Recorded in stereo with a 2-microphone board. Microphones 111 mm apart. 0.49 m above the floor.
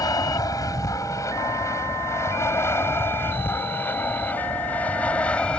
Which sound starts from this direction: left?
An aircraft, at 0.0 s.